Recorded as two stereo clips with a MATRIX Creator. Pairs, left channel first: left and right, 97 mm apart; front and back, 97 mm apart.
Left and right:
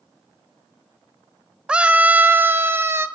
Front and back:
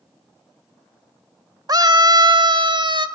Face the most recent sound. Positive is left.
turn(degrees=-150)